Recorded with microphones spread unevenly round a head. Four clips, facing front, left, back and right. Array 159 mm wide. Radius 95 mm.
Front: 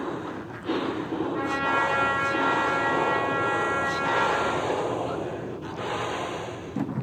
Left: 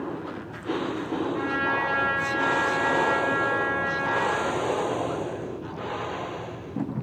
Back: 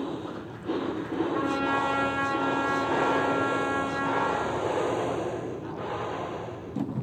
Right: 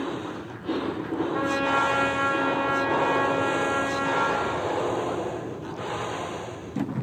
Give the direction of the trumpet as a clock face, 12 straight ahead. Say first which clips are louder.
Right 5 dB, front 1 dB; 4 o'clock.